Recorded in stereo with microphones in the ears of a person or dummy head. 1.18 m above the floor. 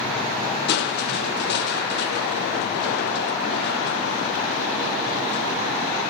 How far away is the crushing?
About 0.6 m.